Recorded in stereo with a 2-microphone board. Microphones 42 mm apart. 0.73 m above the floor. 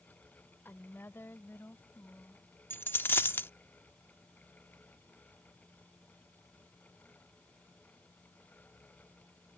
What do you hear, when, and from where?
0.7 s a woman speaking: 65° left (ahead or behind); by 2.5 s 60° left (ahead or behind)
2.7 s a dropped coin: 60° left (ahead or behind)